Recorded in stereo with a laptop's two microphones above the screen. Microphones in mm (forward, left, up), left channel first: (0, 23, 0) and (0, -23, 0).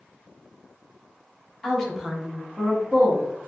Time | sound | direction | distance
1.6 | a woman speaking | 15° left (ahead or behind) | 0.8 m